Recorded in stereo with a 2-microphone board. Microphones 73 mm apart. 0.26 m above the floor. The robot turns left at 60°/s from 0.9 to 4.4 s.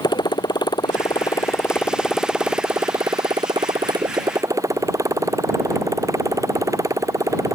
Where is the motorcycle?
75° left; by 7.5 s 135° right.